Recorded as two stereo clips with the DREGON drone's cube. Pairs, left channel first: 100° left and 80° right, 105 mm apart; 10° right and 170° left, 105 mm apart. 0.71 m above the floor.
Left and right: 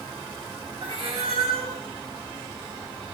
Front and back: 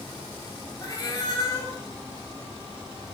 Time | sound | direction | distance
0.8 | a cat meowing | 65° right | 1.6 m